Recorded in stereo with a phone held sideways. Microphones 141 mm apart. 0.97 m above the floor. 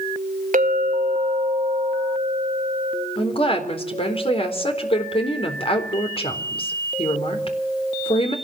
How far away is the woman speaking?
About 4 m.